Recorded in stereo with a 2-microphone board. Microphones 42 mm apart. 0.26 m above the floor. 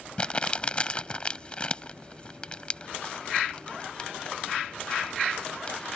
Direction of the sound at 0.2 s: 25° left (ahead or behind).